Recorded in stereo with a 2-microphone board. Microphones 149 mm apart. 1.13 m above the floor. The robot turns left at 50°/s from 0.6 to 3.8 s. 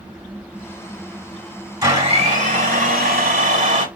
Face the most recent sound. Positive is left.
turn(degrees=-120)